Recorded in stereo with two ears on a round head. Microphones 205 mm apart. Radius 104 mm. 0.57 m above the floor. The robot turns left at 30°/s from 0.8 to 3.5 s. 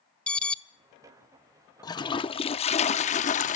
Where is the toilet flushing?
145° left, 0.7 m; by 3.6 s 95° left, 0.7 m.